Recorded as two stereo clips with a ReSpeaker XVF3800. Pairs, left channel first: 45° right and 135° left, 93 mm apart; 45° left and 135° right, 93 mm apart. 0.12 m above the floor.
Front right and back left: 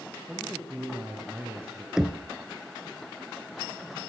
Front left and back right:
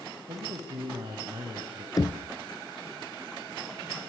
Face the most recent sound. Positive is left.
turn(degrees=55)